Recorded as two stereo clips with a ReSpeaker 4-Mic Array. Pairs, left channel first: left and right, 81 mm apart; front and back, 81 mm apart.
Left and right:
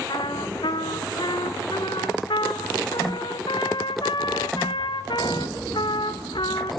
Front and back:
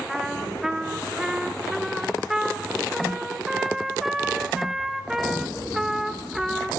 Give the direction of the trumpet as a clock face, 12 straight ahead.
9 o'clock.